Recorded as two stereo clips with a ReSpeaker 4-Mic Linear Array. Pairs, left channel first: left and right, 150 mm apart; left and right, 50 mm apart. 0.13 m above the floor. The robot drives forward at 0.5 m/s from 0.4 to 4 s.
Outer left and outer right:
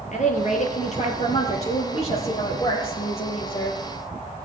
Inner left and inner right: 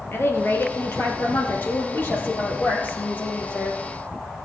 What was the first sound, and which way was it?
A woman speaking, 55° left (ahead or behind).